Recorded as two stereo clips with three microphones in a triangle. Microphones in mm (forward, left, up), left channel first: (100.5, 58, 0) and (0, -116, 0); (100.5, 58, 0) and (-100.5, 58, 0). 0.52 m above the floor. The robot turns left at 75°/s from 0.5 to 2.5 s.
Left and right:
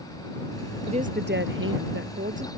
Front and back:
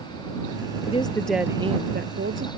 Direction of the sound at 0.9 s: 55° right.